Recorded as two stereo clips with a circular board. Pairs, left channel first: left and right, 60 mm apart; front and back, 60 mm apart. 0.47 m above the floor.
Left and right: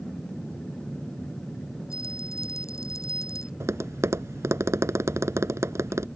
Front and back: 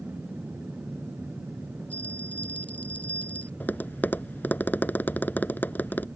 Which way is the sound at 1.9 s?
65° left.